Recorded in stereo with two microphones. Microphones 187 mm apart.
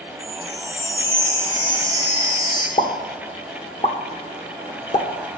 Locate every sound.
0.2 s a chime: 20° left (ahead or behind), 2.5 m
2.8 s a pop: 35° left (ahead or behind), 0.8 m